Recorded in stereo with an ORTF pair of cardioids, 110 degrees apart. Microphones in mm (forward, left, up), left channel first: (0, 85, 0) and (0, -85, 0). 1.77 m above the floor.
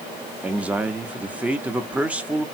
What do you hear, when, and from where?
0.4 s a man speaking: 10° right, 0.9 m